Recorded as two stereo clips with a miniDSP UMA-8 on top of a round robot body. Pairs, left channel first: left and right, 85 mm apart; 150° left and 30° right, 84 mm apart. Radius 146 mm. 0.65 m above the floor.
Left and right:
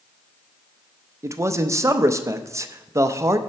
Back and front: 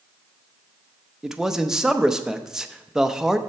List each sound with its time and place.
1.2 s a man speaking: 110° right, 0.8 m